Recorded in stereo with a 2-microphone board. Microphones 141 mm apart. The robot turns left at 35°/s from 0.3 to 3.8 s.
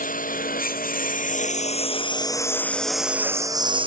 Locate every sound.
0.0 s a lawn mower: 75° left (ahead or behind); by 3.9 s 35° right (ahead or behind)